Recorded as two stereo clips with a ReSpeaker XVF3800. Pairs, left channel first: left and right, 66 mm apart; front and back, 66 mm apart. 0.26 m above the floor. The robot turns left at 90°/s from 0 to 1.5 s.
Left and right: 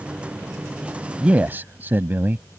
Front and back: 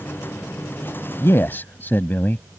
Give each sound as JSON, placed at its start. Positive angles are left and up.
{"t": 1.2, "sound": "a man speaking", "azimuth_deg": -20}